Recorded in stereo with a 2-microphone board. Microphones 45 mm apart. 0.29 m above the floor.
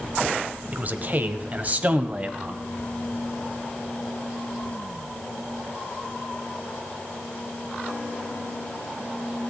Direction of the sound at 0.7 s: 35° right (ahead or behind).